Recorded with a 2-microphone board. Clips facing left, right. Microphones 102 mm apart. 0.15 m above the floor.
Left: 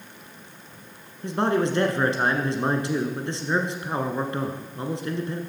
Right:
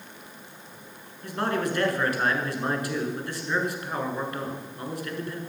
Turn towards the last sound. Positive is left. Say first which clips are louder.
# left 5 dB
turn(degrees=25)  # may be behind; listen again after turning